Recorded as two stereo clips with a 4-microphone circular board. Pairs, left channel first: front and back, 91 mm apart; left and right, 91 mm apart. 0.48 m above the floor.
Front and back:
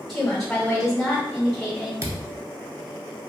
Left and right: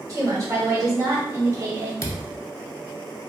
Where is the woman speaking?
90° right, 1.5 m.